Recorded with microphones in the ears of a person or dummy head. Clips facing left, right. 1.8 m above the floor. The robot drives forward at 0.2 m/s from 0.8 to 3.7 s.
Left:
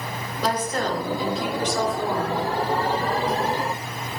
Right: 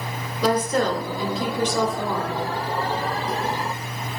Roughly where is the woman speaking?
Right.